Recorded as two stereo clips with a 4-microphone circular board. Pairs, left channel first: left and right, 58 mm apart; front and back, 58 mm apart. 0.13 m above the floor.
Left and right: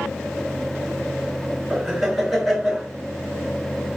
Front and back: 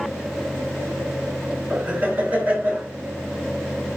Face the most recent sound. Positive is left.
turn(degrees=-155)